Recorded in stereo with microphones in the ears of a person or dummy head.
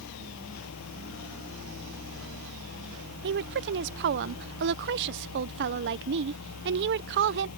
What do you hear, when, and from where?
0.0 s a fan: 85° left
3.2 s a woman speaking: 65° right (ahead or behind)